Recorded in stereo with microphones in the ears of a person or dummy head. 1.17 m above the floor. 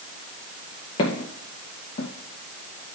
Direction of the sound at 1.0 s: 30° left (ahead or behind).